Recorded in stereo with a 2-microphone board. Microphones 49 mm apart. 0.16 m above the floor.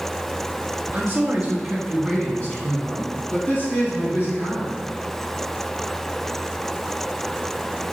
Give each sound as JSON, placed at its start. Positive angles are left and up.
{"t": 0.9, "sound": "a man speaking", "side_deg": -30, "distance_m": 1.3}